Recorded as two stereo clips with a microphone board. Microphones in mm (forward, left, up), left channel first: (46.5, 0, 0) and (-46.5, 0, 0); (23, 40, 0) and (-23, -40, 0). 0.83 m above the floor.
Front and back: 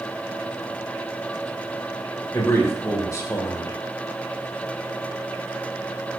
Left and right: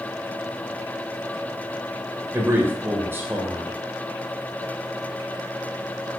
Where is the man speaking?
55° right, 2.5 m.